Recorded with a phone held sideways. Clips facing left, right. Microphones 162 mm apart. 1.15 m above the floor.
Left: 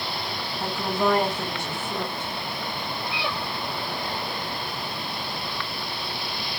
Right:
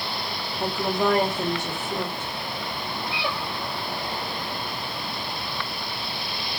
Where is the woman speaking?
15° right (ahead or behind), 1.5 m.